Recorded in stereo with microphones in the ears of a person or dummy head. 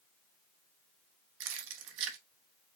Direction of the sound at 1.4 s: 70° right (ahead or behind).